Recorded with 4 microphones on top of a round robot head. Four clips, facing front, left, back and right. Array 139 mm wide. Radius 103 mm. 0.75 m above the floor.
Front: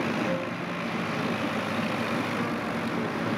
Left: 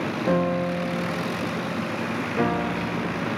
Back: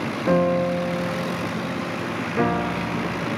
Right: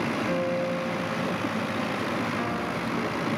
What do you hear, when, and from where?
0.3 s a piano: 150° left, 0.7 m